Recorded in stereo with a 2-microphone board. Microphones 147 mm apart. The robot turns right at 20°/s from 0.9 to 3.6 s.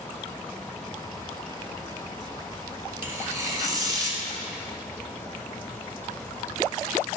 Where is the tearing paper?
15° right (ahead or behind), 1.7 m; by 4.2 s 25° right (ahead or behind), 1.7 m.